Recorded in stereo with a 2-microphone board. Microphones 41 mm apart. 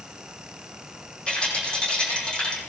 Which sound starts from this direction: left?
A rattle, at 1.3 s.